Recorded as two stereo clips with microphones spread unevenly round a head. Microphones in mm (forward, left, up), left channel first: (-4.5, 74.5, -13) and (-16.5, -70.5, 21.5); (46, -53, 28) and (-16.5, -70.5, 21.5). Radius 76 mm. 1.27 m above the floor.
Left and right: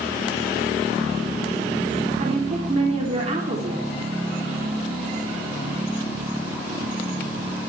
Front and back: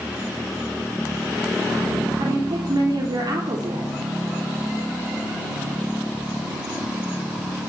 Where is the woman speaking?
145° right, 3.5 m.